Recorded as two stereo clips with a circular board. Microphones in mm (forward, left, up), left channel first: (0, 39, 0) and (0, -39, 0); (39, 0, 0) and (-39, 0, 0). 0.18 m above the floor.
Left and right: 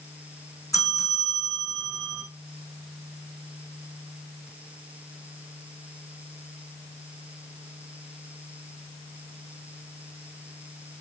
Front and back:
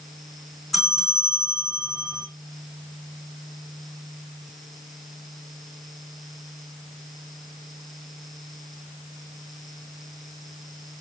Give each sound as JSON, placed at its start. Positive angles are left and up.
{"t": 0.7, "sound": "a bell", "azimuth_deg": 90, "distance_m": 2.0}